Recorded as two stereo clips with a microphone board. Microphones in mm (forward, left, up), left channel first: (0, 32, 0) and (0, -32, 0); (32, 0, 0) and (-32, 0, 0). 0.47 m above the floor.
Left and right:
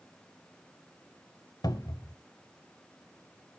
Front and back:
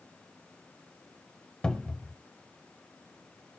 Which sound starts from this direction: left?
A cupboard door, at 1.6 s.